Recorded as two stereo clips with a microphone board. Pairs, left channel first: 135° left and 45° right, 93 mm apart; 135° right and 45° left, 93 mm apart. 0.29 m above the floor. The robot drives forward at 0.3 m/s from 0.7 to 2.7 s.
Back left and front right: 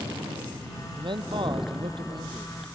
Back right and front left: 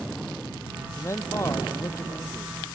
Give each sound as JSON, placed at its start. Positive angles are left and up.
{"t": 1.0, "sound": "a man speaking", "azimuth_deg": -75}